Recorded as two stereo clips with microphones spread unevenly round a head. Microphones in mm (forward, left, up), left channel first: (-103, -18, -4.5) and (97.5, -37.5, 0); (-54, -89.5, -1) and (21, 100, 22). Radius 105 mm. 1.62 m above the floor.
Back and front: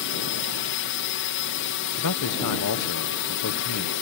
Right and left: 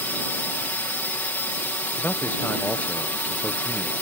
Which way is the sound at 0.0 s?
170° left.